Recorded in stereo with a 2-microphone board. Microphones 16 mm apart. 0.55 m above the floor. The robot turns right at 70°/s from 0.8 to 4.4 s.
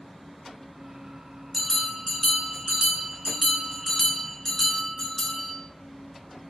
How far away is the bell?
About 1.0 m.